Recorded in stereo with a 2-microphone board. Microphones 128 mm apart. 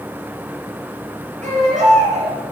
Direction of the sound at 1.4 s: 85° right.